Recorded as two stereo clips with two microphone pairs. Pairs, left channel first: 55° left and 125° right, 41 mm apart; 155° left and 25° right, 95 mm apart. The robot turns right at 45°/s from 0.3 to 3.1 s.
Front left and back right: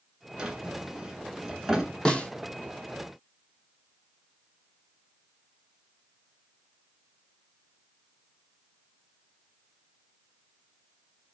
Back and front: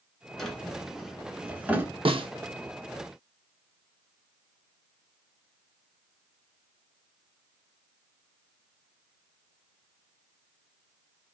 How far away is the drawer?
About 0.9 m.